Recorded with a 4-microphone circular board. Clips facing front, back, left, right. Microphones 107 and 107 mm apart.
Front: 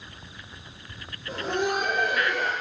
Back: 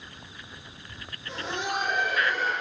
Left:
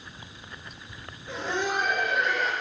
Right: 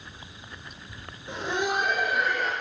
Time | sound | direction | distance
1.3 | laughter | 25° right | 1.5 m